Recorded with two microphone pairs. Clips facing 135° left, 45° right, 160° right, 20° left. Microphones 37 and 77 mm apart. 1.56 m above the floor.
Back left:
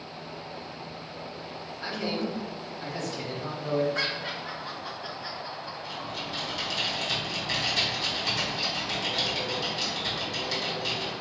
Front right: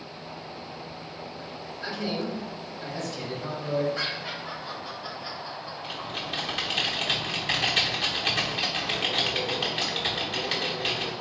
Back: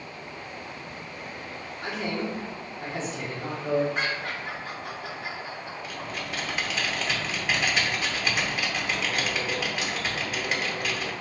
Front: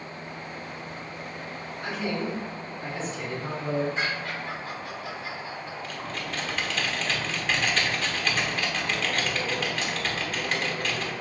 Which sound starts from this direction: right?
Typing on a keyboard, at 5.8 s.